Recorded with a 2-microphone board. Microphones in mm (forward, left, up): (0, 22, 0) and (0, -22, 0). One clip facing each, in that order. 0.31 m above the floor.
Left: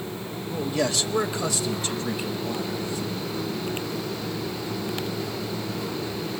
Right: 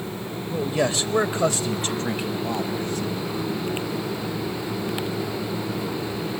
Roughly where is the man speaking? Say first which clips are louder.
Right 2 dB; centre.